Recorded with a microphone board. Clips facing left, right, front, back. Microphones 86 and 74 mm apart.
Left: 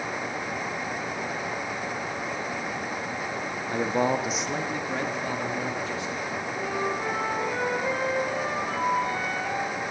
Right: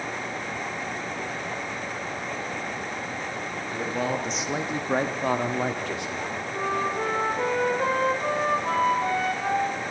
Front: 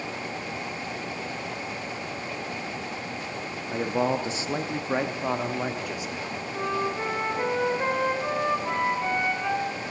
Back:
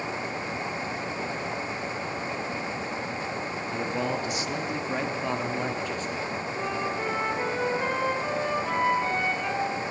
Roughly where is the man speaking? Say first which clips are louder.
Left 4 dB, front 5 dB; ahead left.